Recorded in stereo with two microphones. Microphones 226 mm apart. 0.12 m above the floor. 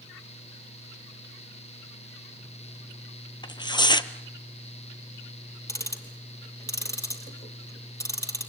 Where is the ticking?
15° left (ahead or behind), 3 m.